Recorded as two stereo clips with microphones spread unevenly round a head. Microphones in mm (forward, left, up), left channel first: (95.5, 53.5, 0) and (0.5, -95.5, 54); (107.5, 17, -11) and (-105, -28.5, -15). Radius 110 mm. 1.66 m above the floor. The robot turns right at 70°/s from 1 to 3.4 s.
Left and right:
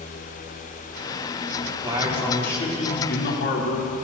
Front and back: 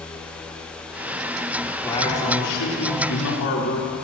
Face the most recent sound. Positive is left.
turn(degrees=45)